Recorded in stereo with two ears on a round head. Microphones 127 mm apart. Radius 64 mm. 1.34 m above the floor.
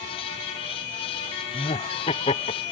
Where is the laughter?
35° left (ahead or behind), 0.5 m.